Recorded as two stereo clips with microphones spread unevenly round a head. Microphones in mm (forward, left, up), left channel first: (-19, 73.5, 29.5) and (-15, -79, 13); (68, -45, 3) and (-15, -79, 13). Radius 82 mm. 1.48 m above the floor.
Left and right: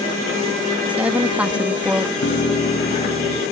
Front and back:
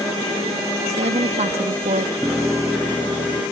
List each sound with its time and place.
0.9 s a woman speaking: 170° right
2.2 s a piano: 120° left